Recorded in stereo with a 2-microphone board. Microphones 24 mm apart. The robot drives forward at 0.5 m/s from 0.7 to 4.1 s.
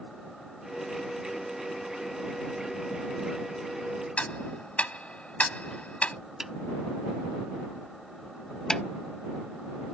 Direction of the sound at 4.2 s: 70° left (ahead or behind).